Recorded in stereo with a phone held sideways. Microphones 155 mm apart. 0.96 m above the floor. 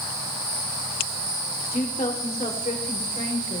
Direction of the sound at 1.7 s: 60° left (ahead or behind).